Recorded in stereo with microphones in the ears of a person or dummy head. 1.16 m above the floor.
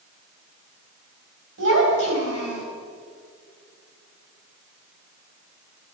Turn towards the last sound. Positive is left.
turn(degrees=-85)